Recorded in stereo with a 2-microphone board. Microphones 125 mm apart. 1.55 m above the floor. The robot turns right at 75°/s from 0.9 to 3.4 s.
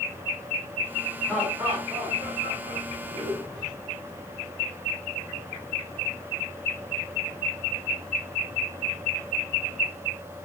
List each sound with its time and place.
1.2 s laughter: 175° left, 5.5 m; by 3.7 s 25° right, 5.5 m